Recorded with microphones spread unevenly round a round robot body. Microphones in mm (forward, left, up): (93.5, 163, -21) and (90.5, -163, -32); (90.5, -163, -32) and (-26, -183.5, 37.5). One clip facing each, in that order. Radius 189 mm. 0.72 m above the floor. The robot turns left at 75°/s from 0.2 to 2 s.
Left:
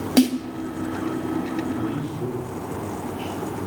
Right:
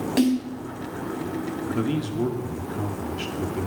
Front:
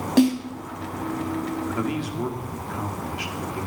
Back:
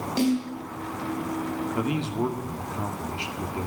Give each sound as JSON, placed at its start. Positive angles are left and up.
{"t": 0.2, "sound": "a snare drum", "azimuth_deg": 65, "distance_m": 3.0}
{"t": 1.8, "sound": "a man speaking", "azimuth_deg": -70, "distance_m": 2.0}